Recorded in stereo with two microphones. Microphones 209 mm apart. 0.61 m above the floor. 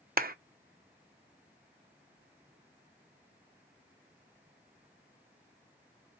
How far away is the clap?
About 0.6 m.